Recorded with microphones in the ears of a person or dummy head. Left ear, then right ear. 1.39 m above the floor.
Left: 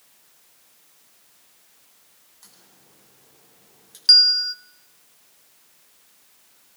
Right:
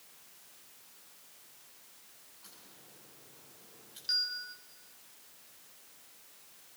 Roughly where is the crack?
Left.